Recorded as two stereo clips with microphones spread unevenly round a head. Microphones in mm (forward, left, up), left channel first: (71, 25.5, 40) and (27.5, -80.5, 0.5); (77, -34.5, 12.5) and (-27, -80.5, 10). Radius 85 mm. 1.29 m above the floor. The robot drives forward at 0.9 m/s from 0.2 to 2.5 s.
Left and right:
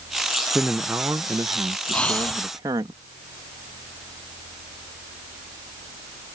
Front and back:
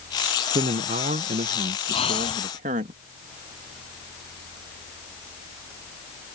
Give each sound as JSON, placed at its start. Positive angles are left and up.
{"t": 0.6, "sound": "a man speaking", "azimuth_deg": 180}
{"t": 1.9, "sound": "breathing", "azimuth_deg": -10}